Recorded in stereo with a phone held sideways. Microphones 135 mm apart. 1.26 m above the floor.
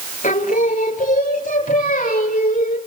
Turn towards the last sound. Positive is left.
turn(degrees=85)